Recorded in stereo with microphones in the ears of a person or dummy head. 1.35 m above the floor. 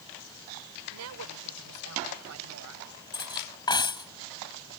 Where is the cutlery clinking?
20° left (ahead or behind).